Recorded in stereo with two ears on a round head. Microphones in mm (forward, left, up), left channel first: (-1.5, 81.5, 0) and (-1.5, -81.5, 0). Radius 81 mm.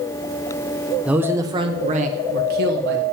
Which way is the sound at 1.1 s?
5° right (ahead or behind).